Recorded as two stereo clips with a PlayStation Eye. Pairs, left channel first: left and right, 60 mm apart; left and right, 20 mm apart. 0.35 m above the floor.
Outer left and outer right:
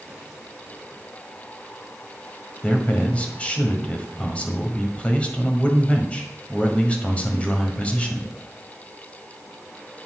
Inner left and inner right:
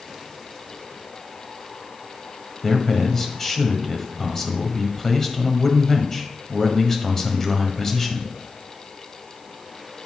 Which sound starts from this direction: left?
A man speaking, at 2.6 s.